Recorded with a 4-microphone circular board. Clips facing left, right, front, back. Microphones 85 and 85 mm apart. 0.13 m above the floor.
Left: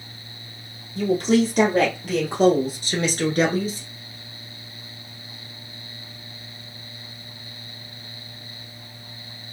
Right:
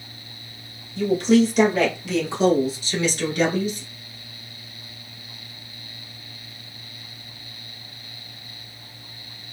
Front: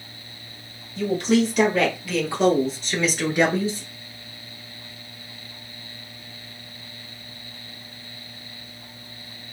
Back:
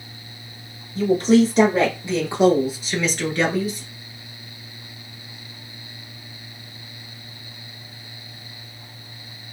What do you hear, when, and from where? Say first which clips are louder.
0.9 s a woman speaking: right 2 dB, back 5 dB; 135° left, 3 m; by 3.9 s 45° left, 1.6 m